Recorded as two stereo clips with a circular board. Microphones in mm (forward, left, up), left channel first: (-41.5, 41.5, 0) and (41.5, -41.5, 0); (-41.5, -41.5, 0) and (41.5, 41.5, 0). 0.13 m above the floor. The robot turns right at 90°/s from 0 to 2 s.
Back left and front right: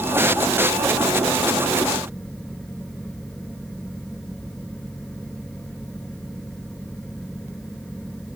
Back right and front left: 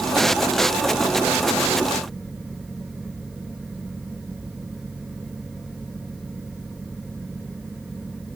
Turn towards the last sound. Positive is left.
No sound to turn to.